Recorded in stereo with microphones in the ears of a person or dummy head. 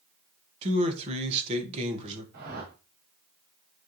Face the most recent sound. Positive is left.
turn(degrees=-50)  # may be behind; listen again after turning